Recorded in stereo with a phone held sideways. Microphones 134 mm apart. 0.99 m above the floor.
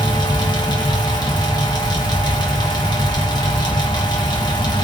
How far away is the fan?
About 1.1 m.